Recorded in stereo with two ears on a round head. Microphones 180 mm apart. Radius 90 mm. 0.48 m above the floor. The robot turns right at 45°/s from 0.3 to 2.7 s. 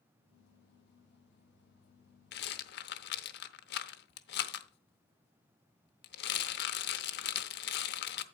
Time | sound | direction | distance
2.3 | a rattle | 55° left (ahead or behind) | 0.8 m